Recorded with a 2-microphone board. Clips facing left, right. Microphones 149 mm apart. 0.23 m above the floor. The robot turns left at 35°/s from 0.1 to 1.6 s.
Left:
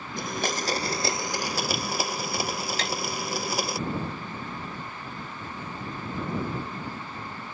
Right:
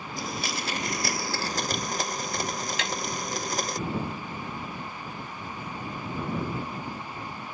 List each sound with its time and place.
0.2 s a blender: 60° left; by 3.8 s 10° left
2.8 s tapping: 40° left (ahead or behind)